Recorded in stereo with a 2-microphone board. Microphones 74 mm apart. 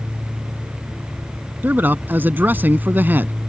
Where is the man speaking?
30° right (ahead or behind).